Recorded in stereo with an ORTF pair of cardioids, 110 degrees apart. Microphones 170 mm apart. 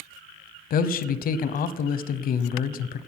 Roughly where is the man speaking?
Ahead left.